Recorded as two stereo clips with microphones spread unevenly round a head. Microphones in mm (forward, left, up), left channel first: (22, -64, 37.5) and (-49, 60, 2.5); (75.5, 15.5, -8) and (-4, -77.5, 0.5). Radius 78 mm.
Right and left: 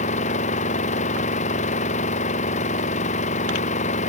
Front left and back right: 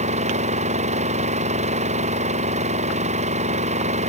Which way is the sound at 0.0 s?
100° right.